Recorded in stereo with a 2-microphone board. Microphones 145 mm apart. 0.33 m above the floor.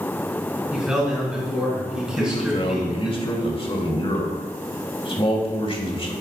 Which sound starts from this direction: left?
A man speaking, at 2.1 s.